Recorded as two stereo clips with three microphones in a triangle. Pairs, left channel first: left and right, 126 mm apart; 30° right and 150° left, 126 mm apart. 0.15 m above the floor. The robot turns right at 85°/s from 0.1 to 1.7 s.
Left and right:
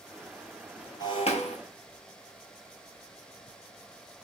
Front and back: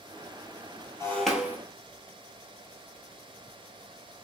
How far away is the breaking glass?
About 1.0 m.